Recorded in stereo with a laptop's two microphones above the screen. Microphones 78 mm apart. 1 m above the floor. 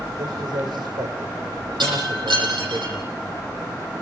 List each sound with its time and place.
0.2 s a man speaking: 80° right, 4 m; by 2.8 s 55° right (ahead or behind), 3.5 m
1.8 s breaking glass: 85° right, 9.5 m